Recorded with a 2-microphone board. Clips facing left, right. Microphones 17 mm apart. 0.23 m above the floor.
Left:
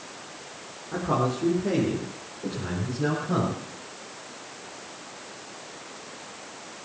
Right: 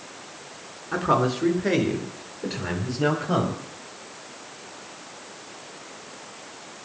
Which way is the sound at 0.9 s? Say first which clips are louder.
Right 4 dB; 60° right (ahead or behind).